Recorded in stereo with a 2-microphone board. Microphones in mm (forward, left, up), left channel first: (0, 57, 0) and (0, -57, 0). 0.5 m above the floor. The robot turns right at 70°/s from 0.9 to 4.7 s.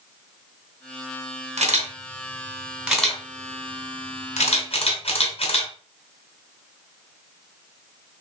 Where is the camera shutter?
80° right, 2 m; by 5.7 s 55° left (ahead or behind), 2 m.